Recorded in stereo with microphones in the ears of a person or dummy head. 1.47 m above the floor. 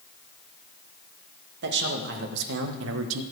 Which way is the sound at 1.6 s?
65° right (ahead or behind).